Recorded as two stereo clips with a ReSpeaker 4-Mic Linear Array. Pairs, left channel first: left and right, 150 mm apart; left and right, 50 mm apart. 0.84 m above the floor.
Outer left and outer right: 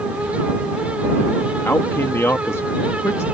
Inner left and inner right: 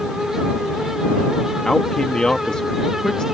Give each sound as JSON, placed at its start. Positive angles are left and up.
{"t": 1.6, "sound": "a man speaking", "side_deg": 15}